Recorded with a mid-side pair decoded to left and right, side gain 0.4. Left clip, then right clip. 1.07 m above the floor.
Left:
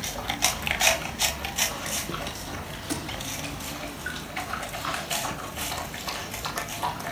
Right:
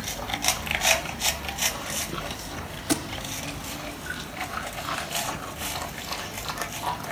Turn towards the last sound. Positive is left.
turn(degrees=-55)